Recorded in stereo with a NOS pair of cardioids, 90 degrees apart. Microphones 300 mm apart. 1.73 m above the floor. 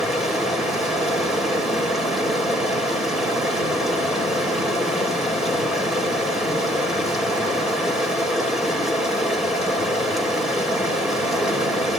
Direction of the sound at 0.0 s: Straight ahead.